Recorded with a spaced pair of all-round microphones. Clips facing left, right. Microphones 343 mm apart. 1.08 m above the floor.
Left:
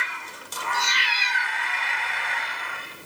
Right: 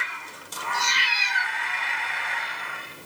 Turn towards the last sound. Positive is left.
turn(degrees=-5)  # may be behind; listen again after turning